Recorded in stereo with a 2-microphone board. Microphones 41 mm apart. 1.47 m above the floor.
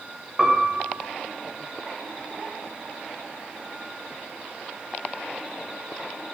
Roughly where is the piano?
Centre.